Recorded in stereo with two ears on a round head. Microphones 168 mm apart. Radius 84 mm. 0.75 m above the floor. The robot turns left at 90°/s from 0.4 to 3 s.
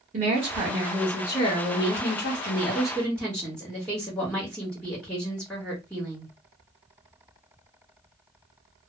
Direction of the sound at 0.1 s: 120° right.